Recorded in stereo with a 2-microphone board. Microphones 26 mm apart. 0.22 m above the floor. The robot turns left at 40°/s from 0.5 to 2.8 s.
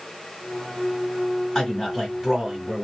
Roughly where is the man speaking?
Centre.